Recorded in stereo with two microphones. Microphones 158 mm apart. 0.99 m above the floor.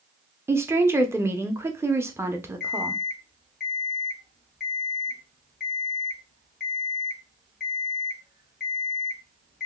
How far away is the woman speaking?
About 0.5 m.